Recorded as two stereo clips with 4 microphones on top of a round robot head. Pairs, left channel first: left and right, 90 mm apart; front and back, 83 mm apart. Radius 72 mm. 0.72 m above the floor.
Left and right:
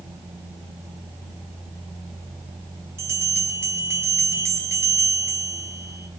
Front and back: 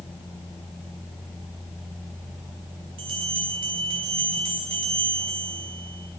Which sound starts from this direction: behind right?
A bell, at 3.0 s.